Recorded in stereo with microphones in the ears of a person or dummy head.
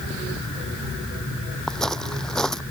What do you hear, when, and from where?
1.7 s footsteps: 10° left (ahead or behind)